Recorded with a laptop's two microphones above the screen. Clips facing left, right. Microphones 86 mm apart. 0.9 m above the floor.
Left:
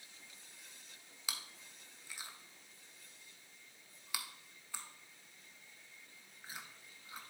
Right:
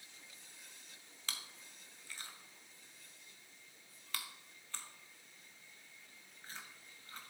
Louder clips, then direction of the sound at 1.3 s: Left 1 dB; 10° left (ahead or behind).